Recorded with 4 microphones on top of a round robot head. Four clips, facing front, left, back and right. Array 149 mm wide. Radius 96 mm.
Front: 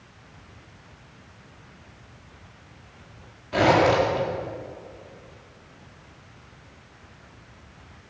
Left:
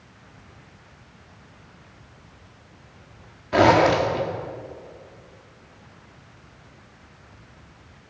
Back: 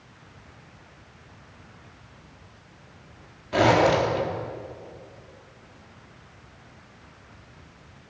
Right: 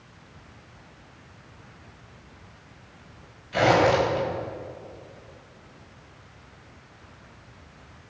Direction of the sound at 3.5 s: 100° left.